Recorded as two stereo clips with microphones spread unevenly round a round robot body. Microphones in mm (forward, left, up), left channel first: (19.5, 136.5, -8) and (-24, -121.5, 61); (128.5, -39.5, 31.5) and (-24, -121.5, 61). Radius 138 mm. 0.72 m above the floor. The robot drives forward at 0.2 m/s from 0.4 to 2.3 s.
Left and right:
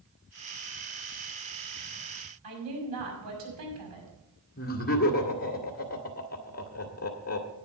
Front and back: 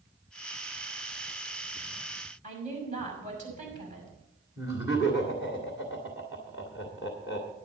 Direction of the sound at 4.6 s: 130° left.